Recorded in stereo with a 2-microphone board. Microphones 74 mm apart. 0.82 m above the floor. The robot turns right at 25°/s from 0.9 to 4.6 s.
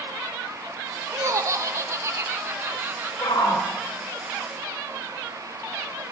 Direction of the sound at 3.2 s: 70° left (ahead or behind).